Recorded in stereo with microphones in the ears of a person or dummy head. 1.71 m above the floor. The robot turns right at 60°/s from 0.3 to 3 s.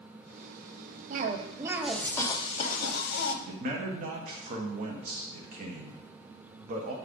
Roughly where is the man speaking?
Right.